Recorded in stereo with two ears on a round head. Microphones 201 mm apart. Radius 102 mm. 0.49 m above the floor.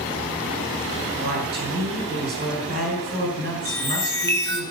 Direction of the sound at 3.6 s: 15° left (ahead or behind).